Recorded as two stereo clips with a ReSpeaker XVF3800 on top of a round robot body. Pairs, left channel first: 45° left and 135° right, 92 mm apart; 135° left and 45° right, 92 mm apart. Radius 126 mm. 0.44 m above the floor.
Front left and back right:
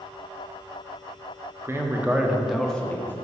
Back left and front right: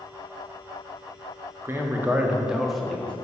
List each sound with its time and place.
1.6 s a man speaking: 90° right, 1.3 m; by 3.1 s 75° left, 1.1 m